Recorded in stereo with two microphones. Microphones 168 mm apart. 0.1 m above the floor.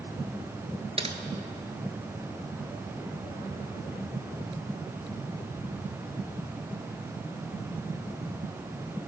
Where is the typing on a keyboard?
35° right (ahead or behind), 1.1 m.